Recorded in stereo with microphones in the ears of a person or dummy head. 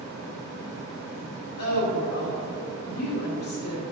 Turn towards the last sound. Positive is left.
turn(degrees=55)  # may be behind; listen again after turning